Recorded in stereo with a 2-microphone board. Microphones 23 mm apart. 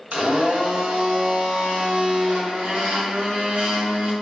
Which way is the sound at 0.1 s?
65° right (ahead or behind).